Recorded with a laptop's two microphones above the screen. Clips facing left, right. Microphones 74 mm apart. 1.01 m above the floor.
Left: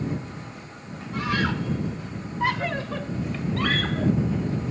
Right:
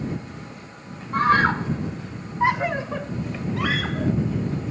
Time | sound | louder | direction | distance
1.1 | a scream | right 8 dB | 50° right (ahead or behind) | ?